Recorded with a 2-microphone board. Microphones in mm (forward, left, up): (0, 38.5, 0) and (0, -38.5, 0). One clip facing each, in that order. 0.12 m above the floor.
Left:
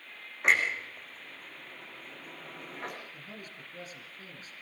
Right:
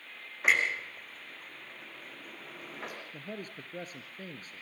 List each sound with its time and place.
0.4 s a clunk: centre (ahead or behind), 5.5 m
3.1 s a man speaking: 45° right (ahead or behind), 1.7 m